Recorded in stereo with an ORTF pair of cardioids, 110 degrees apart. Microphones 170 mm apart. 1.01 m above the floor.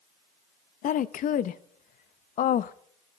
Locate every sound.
0.8 s a woman speaking: 50° left, 0.7 m